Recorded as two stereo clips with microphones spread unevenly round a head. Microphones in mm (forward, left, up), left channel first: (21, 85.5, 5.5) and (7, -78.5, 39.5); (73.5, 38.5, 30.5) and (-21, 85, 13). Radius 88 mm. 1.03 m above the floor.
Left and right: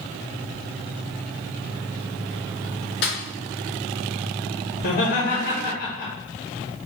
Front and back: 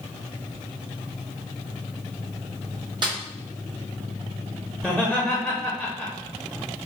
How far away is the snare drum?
About 1.7 m.